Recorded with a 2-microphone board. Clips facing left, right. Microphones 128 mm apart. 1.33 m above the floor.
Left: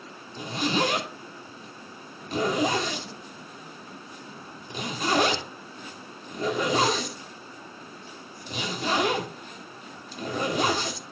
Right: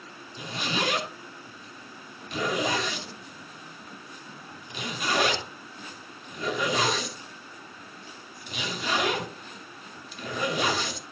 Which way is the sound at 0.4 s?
40° left (ahead or behind).